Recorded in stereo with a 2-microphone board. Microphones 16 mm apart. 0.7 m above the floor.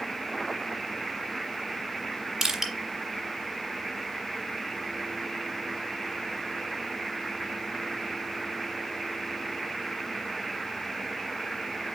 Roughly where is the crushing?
Right.